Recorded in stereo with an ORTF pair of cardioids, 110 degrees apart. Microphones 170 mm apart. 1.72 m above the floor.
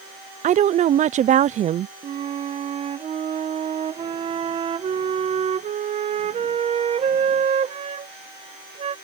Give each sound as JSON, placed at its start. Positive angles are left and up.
{"t": 0.4, "sound": "a woman speaking", "azimuth_deg": -45}
{"t": 2.0, "sound": "a flute", "azimuth_deg": -40}